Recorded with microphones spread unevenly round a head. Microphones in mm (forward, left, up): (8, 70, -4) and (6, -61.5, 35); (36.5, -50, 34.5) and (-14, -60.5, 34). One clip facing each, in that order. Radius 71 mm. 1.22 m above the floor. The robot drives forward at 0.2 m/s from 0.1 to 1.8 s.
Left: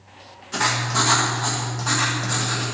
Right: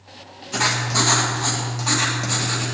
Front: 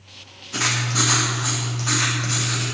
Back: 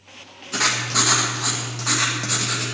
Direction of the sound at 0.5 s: 175° right.